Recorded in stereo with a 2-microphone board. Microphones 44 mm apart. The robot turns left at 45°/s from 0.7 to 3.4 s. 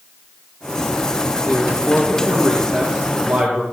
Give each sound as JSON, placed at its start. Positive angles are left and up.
{"t": 1.5, "sound": "a woman speaking", "azimuth_deg": 65, "distance_m": 3.5}